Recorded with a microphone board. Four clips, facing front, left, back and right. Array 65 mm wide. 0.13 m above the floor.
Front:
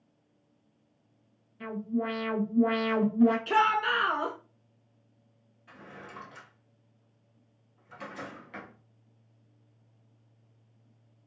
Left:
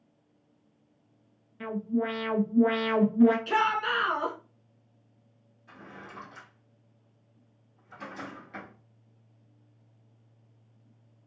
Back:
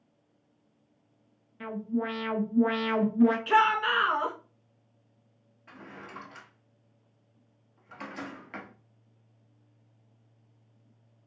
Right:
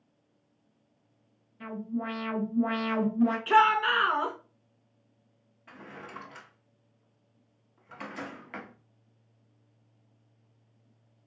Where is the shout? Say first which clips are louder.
Right 4 dB, back 2 dB; 120° right, 1.2 m.